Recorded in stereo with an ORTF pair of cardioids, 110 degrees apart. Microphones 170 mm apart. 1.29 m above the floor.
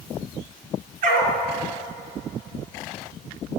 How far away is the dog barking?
About 4.5 m.